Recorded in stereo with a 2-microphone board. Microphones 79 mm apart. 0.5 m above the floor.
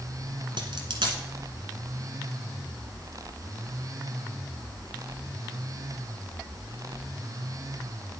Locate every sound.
0.6 s a dropped coin: 80° right, 1.3 m